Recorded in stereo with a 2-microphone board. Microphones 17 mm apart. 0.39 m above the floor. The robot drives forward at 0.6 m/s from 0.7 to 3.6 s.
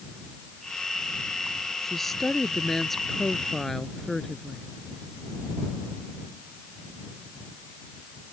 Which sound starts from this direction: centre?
A woman speaking, at 1.8 s.